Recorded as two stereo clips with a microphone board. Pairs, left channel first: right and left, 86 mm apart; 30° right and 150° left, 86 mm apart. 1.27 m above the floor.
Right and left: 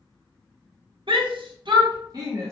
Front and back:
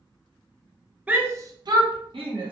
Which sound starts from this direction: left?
A shout, at 1.1 s.